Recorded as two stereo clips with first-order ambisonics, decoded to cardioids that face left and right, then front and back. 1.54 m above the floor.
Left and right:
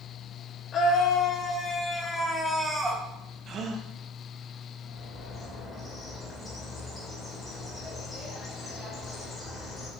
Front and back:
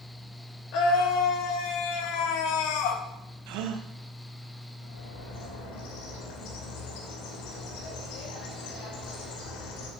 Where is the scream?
30° left, 2.5 m; by 3.0 s 15° right, 1.9 m.